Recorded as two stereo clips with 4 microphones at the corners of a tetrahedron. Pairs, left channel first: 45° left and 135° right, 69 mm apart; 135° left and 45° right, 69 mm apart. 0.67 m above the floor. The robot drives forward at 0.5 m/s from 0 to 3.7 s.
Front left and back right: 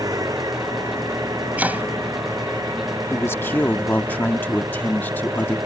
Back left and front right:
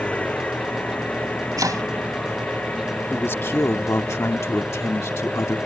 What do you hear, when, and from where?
0.0 s an engine running: 155° right; by 5.7 s 160° right
1.6 s chopping: 70° right; by 1.8 s 75° right
3.1 s a man speaking: 85° left; by 5.6 s 100° left